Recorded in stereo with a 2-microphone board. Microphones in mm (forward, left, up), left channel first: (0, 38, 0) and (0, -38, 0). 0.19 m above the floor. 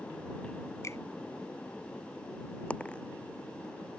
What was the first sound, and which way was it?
A finger snap, 40° left (ahead or behind).